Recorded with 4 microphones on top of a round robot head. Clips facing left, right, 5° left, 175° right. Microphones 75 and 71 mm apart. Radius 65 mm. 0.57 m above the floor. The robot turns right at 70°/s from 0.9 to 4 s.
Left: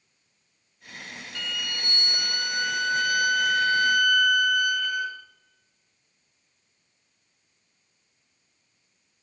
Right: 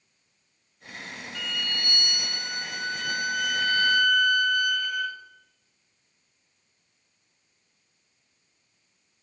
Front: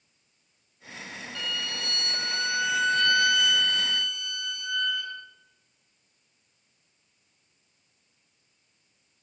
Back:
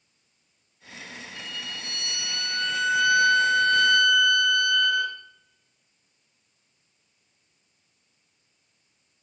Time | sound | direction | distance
1.4 | a violin | 10° right | 1.7 m